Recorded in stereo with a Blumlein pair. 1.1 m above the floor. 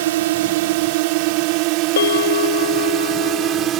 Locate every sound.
0.0 s a drone: 55° right; by 3.8 s 30° right
2.0 s a bell: 65° left